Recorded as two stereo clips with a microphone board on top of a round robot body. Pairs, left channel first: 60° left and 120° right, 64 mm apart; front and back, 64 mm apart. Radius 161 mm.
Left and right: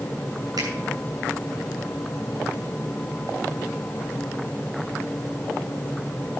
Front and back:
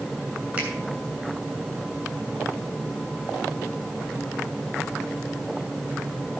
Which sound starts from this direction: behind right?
A finger snap, at 0.6 s.